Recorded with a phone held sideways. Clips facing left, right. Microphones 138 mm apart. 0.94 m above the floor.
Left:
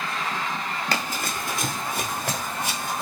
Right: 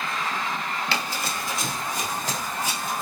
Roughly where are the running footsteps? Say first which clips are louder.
Left 1 dB; left.